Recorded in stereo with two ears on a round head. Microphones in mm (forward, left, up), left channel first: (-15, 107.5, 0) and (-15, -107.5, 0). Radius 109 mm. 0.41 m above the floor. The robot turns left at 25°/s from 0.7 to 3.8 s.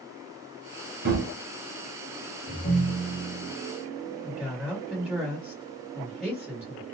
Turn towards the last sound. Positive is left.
turn(degrees=-5)  # may be behind; listen again after turning